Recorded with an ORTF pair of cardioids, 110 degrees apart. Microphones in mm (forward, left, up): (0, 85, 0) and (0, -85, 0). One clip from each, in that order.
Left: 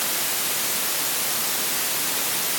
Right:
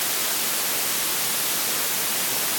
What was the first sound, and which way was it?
Only background noise.